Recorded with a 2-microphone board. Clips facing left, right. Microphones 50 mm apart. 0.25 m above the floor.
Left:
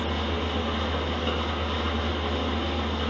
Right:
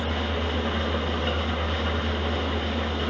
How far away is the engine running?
About 0.7 m.